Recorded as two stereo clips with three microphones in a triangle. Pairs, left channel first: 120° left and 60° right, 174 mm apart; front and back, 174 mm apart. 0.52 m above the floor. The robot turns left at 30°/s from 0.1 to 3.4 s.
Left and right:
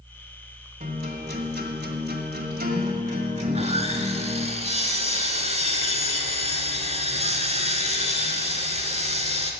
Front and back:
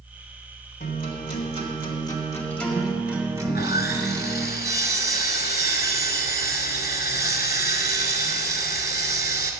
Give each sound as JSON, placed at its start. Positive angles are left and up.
{"t": 0.8, "sound": "a guitar", "azimuth_deg": -30, "distance_m": 1.8}
{"t": 3.5, "sound": "sawing", "azimuth_deg": -10, "distance_m": 1.1}